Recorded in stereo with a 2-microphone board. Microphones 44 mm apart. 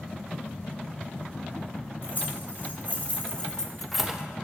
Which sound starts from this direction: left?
Keys jangling, at 2.0 s.